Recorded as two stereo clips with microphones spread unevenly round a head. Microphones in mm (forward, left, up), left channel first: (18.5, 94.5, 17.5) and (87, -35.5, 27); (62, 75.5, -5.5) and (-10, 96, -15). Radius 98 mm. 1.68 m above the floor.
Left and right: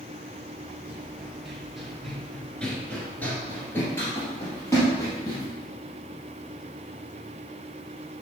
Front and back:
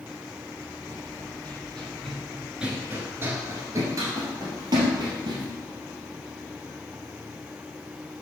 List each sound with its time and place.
0.9 s running footsteps: 15° left, 2 m; by 5.5 s 165° right, 3 m